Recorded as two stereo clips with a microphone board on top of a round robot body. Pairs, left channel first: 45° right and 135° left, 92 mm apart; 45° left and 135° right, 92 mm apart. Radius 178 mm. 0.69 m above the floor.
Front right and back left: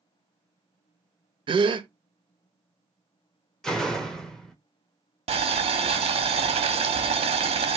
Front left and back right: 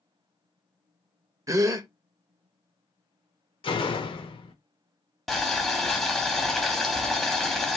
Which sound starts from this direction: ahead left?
A door slam, at 3.6 s.